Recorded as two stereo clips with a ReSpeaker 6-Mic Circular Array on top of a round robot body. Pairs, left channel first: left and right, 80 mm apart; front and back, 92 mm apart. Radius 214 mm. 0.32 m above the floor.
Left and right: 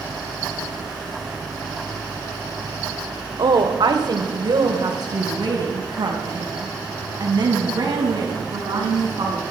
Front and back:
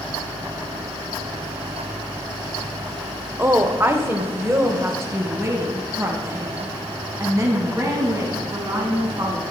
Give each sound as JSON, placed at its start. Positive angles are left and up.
{"t": 3.4, "sound": "a woman speaking", "azimuth_deg": -115, "distance_m": 1.9}